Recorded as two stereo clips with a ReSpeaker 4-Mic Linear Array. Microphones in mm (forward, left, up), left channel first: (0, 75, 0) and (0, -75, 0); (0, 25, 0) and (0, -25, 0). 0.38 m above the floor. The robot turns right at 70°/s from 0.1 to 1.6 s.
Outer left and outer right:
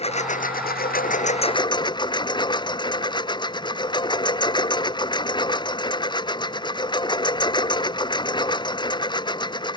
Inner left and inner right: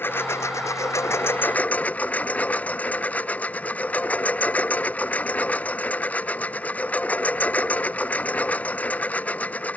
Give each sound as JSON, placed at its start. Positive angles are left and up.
{"t": 0.0, "sound": "a lawn mower", "azimuth_deg": 45}